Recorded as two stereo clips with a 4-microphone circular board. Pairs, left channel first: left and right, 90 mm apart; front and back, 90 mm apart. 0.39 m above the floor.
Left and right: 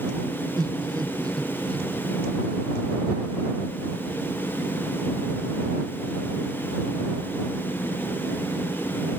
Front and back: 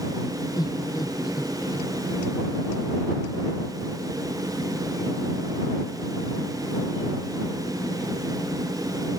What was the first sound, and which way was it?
Laughter, 40° right.